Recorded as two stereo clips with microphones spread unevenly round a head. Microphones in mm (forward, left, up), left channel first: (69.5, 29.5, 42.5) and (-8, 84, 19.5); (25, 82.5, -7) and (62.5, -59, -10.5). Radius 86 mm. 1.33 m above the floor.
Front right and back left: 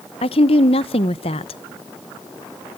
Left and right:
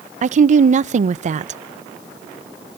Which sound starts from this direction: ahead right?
A woman speaking, at 0.2 s.